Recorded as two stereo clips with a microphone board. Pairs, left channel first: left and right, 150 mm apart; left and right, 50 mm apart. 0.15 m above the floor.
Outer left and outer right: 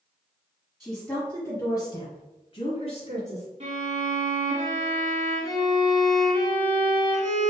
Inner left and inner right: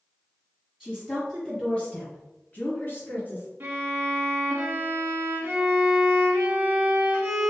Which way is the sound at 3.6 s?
45° right (ahead or behind).